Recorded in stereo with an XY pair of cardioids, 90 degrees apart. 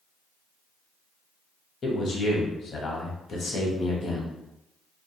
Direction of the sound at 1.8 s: 55° left.